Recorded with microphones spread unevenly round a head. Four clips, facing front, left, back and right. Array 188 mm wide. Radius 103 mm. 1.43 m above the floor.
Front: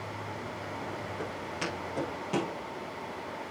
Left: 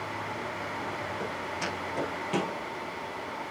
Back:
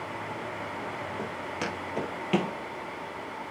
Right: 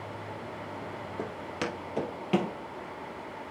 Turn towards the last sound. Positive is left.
turn(degrees=-100)